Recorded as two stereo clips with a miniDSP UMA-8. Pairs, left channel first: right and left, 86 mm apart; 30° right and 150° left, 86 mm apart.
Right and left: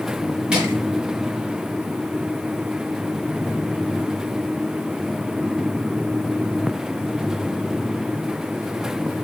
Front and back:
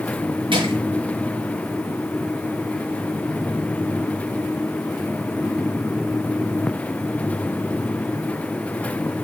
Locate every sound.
0.5 s crushing: 170° left, 5.5 m